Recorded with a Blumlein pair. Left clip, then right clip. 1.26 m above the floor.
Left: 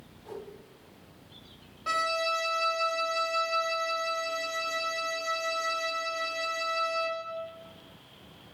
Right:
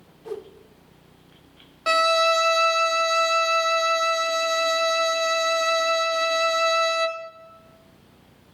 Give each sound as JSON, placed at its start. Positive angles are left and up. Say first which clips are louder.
{"t": 0.2, "sound": "a whoosh", "louder": "right 8 dB", "azimuth_deg": -30, "distance_m": 0.6}
{"t": 1.9, "sound": "a violin", "louder": "right 9 dB", "azimuth_deg": -55, "distance_m": 0.5}